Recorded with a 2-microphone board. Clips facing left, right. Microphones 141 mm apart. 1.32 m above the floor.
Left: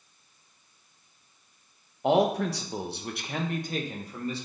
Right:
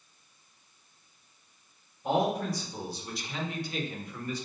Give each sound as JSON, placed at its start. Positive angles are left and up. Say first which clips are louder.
{"t": 2.0, "sound": "a man speaking", "louder": "left 5 dB", "side_deg": 80, "distance_m": 1.2}